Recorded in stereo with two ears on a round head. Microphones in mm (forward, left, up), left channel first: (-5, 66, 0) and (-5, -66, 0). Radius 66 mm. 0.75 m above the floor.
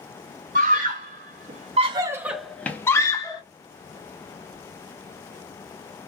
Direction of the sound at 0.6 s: 60° right (ahead or behind).